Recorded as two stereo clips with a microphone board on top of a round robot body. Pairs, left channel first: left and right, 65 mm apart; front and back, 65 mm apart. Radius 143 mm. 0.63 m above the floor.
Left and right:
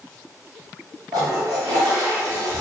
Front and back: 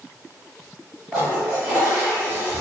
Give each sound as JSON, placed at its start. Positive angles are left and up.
{"t": 1.1, "sound": "a toilet flushing", "azimuth_deg": -105, "distance_m": 0.6}